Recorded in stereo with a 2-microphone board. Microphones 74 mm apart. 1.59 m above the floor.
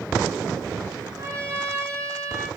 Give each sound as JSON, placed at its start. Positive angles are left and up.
{"t": 1.2, "sound": "a trumpet", "side_deg": -35, "distance_m": 1.7}